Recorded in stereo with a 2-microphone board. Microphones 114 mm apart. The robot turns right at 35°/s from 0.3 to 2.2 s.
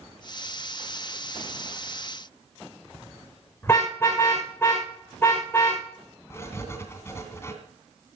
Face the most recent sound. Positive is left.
turn(degrees=25)  # may be behind; listen again after turning